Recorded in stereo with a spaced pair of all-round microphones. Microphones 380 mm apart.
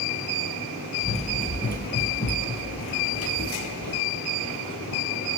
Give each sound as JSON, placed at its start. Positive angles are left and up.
{"t": 1.0, "sound": "running footsteps", "side_deg": 15, "distance_m": 2.5}